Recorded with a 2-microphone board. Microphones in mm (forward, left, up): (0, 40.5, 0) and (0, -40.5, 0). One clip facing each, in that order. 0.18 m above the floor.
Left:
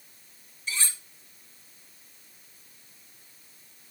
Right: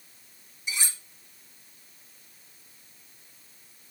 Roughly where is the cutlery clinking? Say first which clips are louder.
Even; centre.